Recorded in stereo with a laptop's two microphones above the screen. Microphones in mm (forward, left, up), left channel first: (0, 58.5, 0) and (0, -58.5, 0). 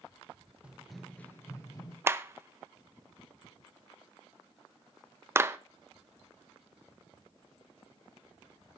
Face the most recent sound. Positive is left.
turn(degrees=-25)  # may be behind; listen again after turning